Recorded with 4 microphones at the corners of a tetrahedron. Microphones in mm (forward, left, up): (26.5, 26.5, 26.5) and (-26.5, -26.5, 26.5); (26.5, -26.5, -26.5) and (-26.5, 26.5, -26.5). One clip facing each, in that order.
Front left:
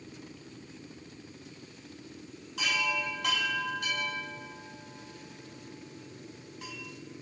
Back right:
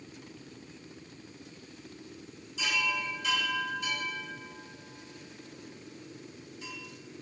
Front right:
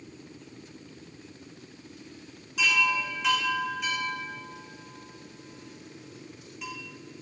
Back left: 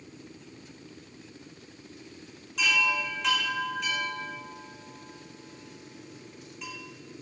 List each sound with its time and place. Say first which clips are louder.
2.6 s a chime: front left 1 dB, front right 1 dB; 40° left, 3 m